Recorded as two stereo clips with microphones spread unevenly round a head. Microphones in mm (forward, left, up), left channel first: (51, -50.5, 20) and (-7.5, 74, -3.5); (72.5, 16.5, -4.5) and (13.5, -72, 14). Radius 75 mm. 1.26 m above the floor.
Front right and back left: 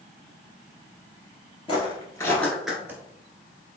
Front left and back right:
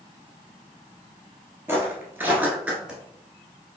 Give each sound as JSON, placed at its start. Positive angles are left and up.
{"t": 1.7, "sound": "footsteps", "azimuth_deg": -75, "distance_m": 1.6}